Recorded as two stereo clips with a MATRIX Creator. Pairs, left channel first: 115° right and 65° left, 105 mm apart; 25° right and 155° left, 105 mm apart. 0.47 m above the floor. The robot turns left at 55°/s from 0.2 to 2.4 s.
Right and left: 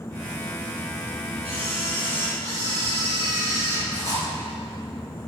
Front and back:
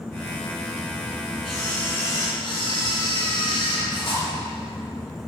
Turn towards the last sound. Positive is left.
turn(degrees=15)